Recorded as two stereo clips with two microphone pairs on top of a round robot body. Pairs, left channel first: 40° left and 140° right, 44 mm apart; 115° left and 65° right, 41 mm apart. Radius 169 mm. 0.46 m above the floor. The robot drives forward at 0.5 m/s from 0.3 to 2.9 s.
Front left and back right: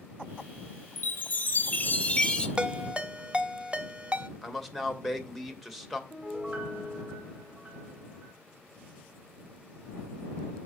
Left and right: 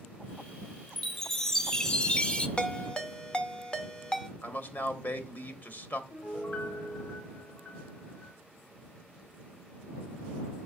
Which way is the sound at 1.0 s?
30° left.